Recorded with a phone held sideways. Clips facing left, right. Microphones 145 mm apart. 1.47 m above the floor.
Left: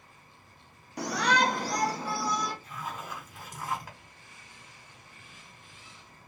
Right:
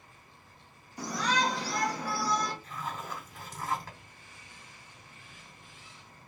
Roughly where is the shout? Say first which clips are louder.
Left 3 dB; left.